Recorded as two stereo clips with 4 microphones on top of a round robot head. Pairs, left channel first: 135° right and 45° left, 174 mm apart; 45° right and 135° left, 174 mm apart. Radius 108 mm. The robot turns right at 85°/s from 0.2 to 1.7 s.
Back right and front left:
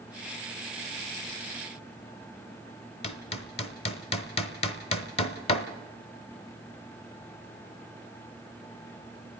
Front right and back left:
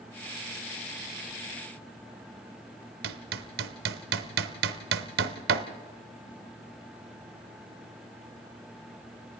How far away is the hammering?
About 0.8 m.